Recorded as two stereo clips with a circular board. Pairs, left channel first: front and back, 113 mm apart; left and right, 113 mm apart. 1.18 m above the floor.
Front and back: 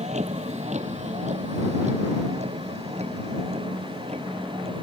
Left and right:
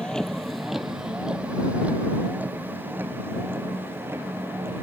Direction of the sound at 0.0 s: 175° left.